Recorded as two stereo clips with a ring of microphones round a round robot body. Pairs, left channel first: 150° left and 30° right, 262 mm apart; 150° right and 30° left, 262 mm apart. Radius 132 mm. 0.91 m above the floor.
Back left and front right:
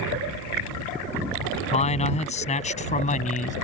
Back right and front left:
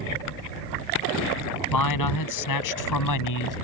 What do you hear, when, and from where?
1.7 s a man speaking: 145° right; by 3.5 s 150° right